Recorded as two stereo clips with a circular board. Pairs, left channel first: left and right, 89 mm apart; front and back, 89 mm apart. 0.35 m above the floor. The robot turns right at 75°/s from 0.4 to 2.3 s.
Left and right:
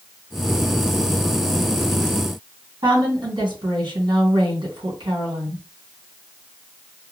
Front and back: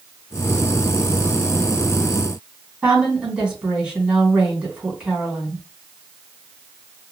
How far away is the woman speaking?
About 2.5 m.